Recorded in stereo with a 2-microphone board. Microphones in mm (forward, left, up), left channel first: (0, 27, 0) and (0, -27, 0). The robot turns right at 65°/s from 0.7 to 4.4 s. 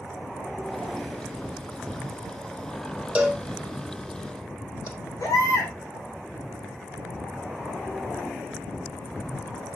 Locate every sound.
3.1 s a cowbell: 20° right (ahead or behind), 2.5 m; by 4.9 s 60° left (ahead or behind), 2.5 m
5.2 s a baby crying: 80° left, 4 m